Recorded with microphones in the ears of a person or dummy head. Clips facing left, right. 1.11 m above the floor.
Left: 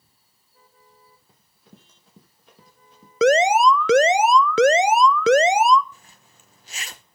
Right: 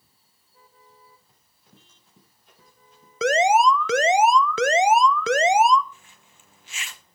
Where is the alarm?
55° left (ahead or behind), 0.6 m.